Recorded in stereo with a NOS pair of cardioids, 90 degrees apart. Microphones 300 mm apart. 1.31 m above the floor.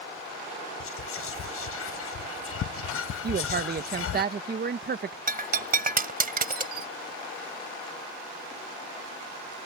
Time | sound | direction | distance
0.8 | whispering | 50° left | ?
3.2 | a woman speaking | 35° right | ?
5.3 | breaking glass | 30° right | ?